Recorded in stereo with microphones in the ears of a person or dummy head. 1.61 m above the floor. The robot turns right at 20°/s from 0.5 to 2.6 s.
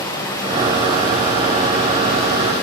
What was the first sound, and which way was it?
Running water, 15° left.